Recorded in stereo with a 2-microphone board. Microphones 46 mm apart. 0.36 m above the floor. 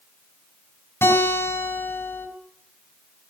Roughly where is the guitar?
Left.